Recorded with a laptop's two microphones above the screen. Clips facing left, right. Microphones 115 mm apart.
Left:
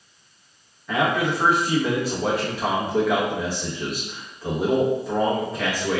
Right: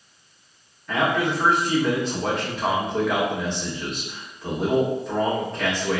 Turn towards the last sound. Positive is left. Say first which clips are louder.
# even
turn(degrees=5)  # may be behind; listen again after turning